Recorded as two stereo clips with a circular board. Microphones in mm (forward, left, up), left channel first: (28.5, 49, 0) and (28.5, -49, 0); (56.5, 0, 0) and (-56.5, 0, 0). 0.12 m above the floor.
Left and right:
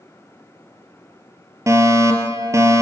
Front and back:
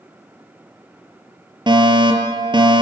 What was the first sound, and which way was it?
A fire alarm, 140° right.